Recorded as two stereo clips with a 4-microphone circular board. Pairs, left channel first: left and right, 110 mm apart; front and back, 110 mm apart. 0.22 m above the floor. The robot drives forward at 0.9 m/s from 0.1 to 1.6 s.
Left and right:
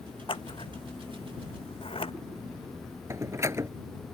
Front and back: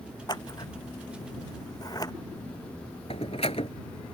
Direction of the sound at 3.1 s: 25° right.